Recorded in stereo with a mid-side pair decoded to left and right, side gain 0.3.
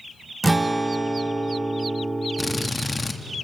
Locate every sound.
0.4 s a guitar: 25° right, 1.1 m
2.4 s a drill: 20° left, 1.9 m